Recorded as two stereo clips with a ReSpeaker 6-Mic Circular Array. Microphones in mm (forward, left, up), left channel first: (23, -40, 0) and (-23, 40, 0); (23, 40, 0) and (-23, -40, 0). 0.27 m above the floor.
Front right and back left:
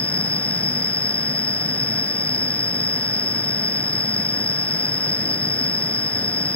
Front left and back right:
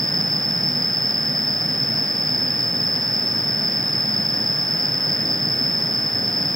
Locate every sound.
0.0 s an insect: 75° right